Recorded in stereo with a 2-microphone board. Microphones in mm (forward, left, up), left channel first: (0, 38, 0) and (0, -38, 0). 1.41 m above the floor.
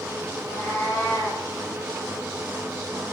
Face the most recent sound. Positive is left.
turn(degrees=25)  # may be behind; listen again after turning